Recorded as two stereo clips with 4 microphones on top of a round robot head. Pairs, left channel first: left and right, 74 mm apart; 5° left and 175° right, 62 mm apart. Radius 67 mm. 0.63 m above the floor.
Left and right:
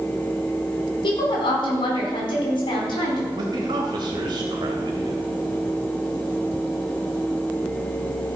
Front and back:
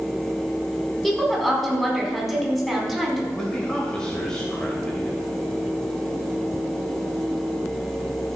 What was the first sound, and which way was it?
A woman speaking, 90° left.